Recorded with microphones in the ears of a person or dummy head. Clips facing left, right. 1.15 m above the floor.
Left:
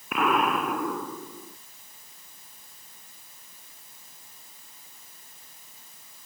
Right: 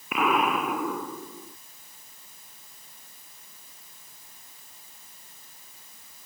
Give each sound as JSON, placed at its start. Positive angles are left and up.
{"t": 0.1, "sound": "an explosion", "side_deg": 0}